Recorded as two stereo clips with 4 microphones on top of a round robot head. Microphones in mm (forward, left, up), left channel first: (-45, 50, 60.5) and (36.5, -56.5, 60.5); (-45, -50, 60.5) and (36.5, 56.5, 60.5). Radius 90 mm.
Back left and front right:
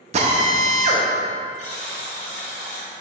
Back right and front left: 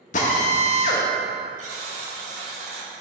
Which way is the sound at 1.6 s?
85° left.